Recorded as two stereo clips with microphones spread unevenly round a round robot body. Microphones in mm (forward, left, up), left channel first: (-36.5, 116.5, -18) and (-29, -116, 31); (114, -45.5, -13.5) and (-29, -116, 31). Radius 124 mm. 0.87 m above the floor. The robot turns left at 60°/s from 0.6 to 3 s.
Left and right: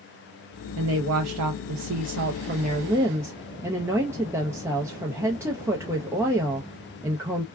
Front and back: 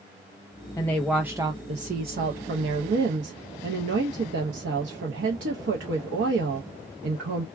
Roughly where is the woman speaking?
Ahead right.